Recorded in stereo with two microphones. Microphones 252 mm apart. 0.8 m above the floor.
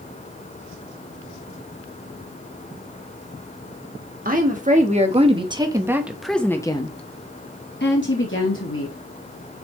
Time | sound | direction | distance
4.2 | a woman speaking | 35° right (ahead or behind) | 1.7 m